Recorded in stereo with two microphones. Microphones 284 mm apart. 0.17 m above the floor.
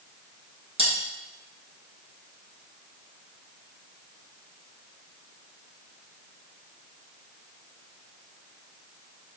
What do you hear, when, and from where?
0.8 s cutlery clinking: 20° right (ahead or behind), 1.7 m